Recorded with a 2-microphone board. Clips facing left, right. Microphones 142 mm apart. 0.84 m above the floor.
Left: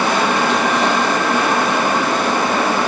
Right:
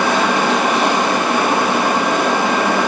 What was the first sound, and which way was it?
Only background noise.